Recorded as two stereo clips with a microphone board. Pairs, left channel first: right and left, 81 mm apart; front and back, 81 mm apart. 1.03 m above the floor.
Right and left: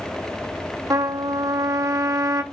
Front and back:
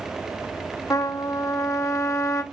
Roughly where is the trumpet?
Ahead left.